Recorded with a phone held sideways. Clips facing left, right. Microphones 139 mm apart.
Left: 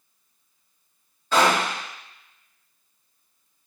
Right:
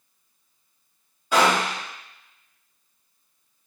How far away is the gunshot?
About 2 m.